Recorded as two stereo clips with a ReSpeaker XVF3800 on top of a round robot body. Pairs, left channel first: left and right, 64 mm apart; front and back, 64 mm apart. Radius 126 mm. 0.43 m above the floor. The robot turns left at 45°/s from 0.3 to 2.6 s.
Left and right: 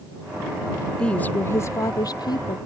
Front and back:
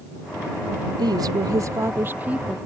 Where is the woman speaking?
170° left; by 2.6 s 95° left.